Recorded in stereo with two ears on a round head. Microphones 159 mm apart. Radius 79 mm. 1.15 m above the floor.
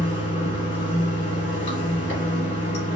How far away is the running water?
About 2.5 m.